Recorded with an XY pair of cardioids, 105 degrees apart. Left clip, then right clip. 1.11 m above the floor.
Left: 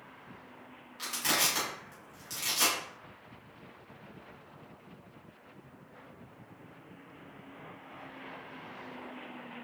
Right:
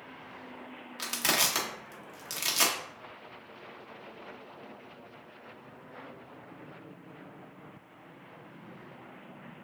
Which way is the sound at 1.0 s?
55° right.